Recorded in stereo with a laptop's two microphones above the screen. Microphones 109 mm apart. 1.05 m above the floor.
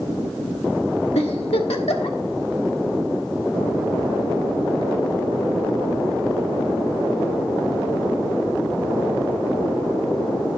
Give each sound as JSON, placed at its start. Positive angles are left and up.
{"t": 1.1, "sound": "a giggle", "side_deg": 80, "distance_m": 1.4}